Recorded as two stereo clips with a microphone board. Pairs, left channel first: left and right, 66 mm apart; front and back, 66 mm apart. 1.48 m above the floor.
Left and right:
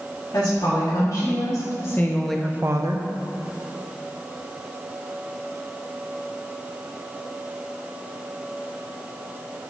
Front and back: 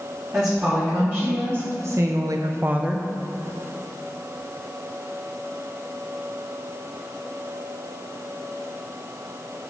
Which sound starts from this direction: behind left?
A woman speaking, at 0.3 s.